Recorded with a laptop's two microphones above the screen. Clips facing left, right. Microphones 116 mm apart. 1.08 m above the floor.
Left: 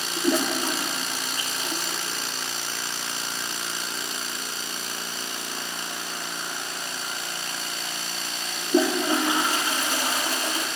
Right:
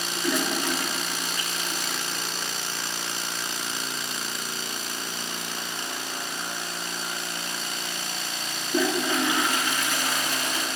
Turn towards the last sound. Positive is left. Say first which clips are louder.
# left 3 dB
turn(degrees=35)  # may be behind; listen again after turning